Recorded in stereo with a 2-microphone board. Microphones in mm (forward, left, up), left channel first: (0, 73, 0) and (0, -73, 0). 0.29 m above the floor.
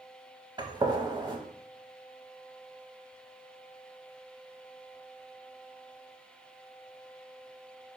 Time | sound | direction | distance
0.6 | a gunshot | 30° right (ahead or behind) | 0.6 m